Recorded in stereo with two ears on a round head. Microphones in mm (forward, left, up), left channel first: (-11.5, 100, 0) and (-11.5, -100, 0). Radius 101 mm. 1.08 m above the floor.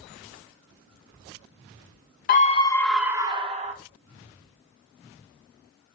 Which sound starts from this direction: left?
A scream, at 2.3 s.